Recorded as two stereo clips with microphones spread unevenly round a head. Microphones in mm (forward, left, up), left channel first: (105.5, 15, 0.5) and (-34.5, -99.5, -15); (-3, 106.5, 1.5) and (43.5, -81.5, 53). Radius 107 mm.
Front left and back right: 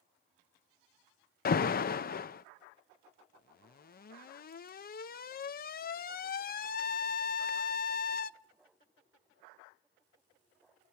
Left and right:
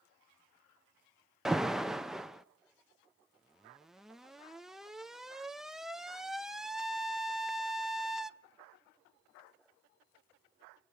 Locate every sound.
1.4 s an alarm: 5° left, 0.5 m